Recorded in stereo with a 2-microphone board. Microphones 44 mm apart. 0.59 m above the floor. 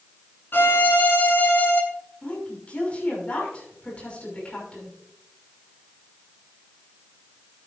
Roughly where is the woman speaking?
Left.